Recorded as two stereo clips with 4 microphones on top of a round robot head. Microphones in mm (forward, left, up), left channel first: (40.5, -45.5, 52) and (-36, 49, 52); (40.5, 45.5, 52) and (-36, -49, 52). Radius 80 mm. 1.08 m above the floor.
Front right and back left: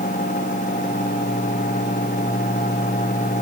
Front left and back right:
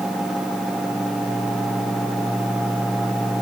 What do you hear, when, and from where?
Only background noise.